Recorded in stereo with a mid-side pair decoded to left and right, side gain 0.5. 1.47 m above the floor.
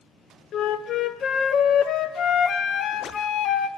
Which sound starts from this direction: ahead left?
A flute, at 0.5 s.